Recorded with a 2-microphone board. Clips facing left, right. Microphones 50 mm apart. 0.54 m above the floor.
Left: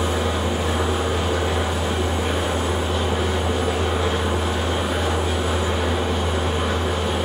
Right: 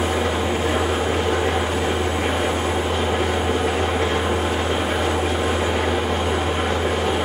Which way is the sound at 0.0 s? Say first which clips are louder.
Right 2 dB; 55° right (ahead or behind).